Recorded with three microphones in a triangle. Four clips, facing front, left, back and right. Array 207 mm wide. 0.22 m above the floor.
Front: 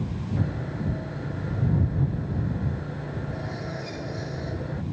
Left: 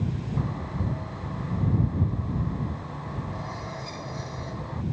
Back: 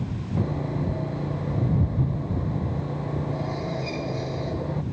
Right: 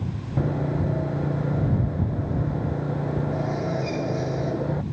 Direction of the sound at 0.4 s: 105° right.